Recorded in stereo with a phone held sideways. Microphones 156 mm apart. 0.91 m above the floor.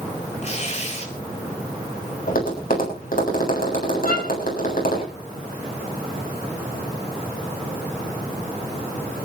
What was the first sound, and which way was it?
Tearing paper, 45° left (ahead or behind).